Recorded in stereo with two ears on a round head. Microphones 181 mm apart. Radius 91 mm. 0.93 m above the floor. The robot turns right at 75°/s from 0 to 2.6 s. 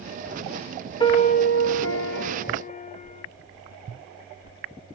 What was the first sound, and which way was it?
A piano, 25° left.